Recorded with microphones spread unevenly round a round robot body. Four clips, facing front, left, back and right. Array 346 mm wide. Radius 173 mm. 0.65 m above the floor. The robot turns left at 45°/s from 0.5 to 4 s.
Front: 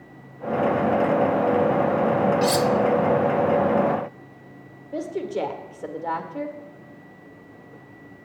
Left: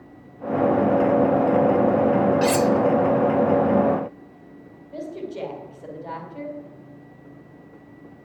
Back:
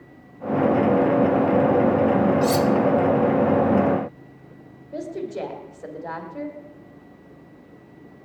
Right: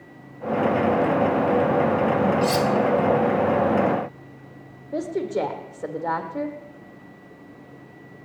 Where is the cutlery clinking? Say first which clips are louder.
Left 2 dB, back 1 dB; 65° left, 0.5 m; by 2.7 s 50° left, 0.5 m.